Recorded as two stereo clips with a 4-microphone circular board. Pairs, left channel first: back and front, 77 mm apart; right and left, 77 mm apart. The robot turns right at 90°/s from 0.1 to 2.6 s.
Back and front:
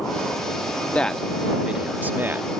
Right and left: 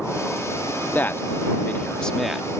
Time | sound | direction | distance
0.9 | a man speaking | 120° right | ?